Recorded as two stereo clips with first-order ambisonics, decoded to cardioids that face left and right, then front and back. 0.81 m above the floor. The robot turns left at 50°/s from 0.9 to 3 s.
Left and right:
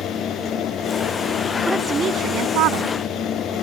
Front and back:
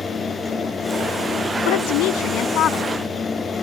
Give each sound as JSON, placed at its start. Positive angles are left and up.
{"t": 1.6, "sound": "a woman speaking", "azimuth_deg": -5}